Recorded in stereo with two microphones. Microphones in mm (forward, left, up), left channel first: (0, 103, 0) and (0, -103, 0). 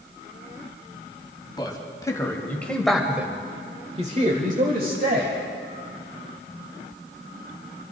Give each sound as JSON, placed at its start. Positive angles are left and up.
{"t": 1.6, "sound": "a man speaking", "side_deg": 20, "distance_m": 2.0}